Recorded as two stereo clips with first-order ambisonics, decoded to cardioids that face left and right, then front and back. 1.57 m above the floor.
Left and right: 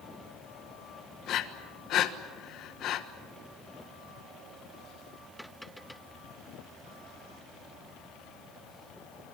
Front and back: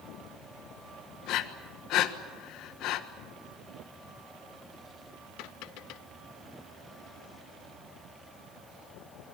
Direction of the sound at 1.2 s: 40° left.